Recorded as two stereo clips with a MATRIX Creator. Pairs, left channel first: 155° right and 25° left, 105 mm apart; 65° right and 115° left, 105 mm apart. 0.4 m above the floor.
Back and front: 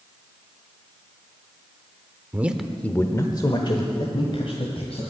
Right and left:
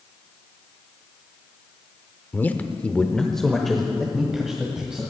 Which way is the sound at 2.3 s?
20° right.